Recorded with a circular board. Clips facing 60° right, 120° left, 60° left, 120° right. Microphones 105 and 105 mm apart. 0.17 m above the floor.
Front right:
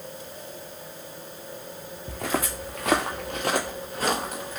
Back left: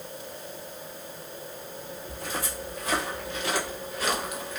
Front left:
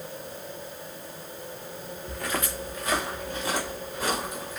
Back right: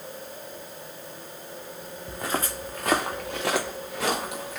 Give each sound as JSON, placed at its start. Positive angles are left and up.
{"t": 2.1, "sound": "footsteps", "azimuth_deg": -45, "distance_m": 0.6}